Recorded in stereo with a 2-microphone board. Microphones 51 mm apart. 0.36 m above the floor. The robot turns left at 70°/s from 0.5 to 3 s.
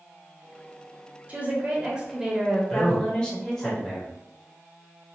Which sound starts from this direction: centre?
A man speaking, at 2.7 s.